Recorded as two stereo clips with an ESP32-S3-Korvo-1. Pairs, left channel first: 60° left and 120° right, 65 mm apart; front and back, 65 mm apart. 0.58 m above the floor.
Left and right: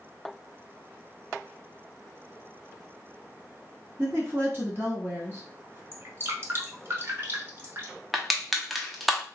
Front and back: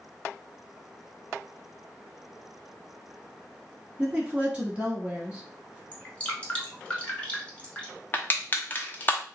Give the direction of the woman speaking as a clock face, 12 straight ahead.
4 o'clock.